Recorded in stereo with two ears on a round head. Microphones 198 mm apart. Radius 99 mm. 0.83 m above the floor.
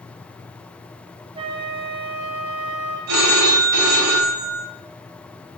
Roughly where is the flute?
Right.